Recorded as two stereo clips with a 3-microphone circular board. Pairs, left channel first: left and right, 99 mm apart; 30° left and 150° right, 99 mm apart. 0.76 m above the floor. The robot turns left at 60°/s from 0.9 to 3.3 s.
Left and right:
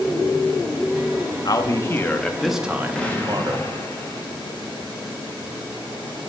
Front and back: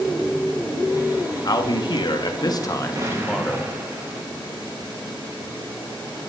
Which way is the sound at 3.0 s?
170° left.